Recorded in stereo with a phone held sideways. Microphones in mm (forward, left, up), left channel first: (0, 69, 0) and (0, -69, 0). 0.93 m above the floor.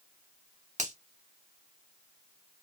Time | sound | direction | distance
0.8 | a finger snap | 55° right (ahead or behind) | 1.0 m